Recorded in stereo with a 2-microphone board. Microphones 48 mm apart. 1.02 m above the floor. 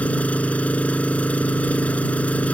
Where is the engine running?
30° left (ahead or behind).